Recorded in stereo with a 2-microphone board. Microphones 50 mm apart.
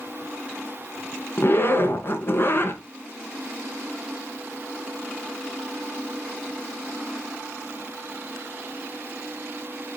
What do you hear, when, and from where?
1.4 s a zipper: 50° left (ahead or behind), 1.9 m